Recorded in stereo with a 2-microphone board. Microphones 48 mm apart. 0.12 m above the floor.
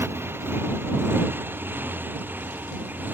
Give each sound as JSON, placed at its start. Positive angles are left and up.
{"t": 0.0, "sound": "a motorcycle", "side_deg": -60}